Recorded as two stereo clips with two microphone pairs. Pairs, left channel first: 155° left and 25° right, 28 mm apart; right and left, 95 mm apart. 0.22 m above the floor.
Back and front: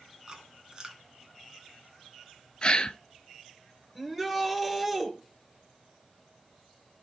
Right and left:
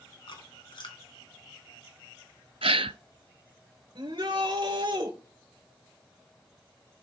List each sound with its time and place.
0.3 s chewing: 85° right, 1.8 m
2.6 s a gasp: 100° left, 0.5 m
4.0 s a shout: 55° left, 2.5 m